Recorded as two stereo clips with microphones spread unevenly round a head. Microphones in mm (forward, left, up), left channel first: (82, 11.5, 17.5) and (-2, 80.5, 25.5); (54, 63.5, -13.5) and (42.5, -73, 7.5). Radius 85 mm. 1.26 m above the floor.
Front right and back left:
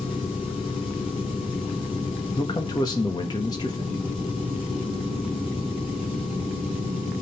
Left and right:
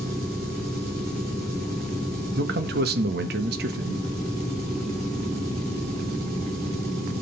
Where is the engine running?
105° right, 4 m.